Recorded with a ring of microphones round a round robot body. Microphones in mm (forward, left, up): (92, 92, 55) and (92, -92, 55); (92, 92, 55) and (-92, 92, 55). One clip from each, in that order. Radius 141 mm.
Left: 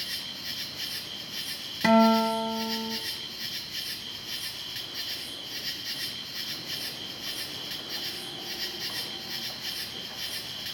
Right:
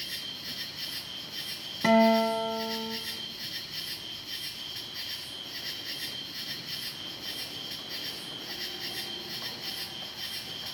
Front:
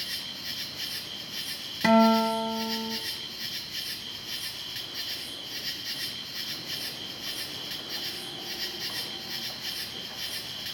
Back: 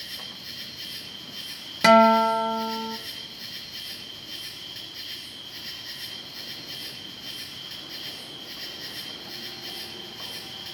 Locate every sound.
0.0 s an insect: 45° left, 4.5 m
1.8 s a guitar: 160° left, 0.8 m